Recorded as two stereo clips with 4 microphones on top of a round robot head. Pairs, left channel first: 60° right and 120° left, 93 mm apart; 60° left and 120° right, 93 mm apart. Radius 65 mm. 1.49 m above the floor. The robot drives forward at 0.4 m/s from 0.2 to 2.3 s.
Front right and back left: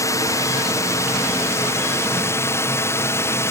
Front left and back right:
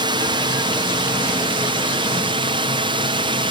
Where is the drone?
105° right; by 3.5 s 115° right.